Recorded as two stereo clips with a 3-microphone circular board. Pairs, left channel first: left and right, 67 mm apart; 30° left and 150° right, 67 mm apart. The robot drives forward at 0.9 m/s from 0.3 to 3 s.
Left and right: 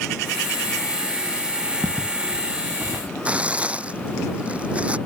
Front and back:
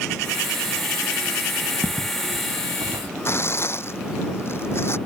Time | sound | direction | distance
1.8 | footsteps | 165° right | ?
3.2 | tearing paper | 20° right | ?